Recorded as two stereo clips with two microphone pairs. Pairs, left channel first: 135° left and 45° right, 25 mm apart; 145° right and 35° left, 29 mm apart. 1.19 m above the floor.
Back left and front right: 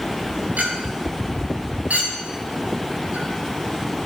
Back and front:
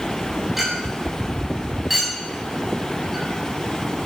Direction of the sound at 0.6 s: 50° right.